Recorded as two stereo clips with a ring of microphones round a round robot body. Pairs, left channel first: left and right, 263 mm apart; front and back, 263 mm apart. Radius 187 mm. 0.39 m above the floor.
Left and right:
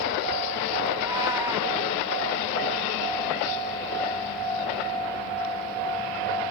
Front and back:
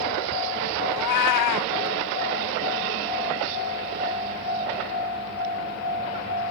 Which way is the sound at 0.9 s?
10° right.